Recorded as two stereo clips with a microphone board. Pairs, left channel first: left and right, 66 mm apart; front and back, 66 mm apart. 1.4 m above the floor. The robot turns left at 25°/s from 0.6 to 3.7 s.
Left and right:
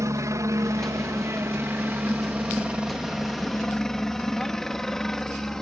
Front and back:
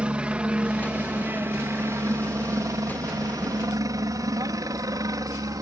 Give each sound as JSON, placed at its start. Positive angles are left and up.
{"t": 0.0, "sound": "a helicopter", "azimuth_deg": -110}